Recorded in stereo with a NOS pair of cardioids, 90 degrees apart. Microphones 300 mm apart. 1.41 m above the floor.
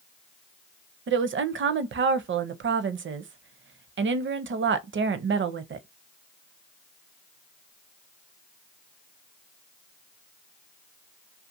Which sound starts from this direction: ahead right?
A woman speaking, at 1.1 s.